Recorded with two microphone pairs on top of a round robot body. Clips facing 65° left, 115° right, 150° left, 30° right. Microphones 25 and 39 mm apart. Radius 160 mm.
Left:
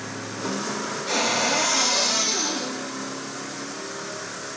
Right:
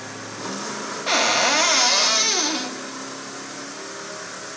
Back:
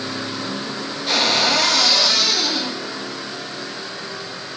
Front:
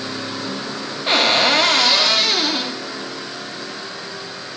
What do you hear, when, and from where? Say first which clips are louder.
1.1 s a cupboard door: right 5 dB, front 3 dB; 80° right, 1.2 m